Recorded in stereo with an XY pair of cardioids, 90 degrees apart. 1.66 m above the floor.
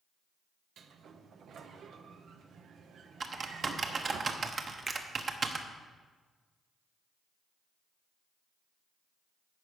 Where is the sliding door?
65° right, 0.9 m.